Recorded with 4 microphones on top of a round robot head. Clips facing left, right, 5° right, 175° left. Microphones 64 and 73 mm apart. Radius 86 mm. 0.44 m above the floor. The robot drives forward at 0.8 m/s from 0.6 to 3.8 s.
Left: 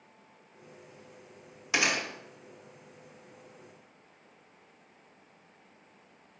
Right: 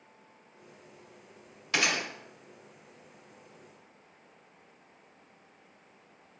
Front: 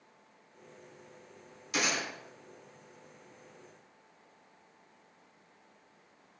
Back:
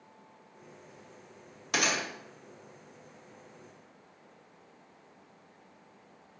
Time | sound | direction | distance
1.7 | a gunshot | 165° left | 1.8 m